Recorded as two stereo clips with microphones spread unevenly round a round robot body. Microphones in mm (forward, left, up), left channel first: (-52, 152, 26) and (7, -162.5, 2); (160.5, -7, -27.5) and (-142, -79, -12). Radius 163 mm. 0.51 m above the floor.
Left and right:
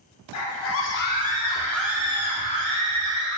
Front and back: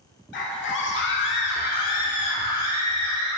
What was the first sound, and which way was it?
A scream, 65° left.